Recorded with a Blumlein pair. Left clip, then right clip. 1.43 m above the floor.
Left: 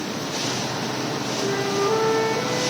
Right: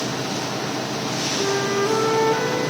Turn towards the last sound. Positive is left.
turn(degrees=-15)